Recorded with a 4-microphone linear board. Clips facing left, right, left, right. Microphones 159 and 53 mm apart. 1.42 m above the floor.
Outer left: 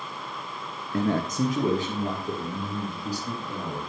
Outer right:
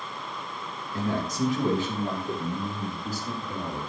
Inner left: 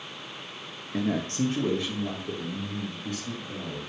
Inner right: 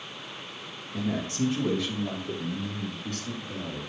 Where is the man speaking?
60° left (ahead or behind), 0.7 m; by 3.8 s 30° left (ahead or behind), 4 m.